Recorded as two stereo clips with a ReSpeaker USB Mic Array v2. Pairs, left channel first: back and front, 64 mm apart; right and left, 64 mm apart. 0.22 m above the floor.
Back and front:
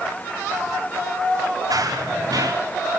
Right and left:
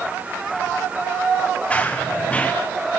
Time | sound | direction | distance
1.7 | running footsteps | 20° right | 5 m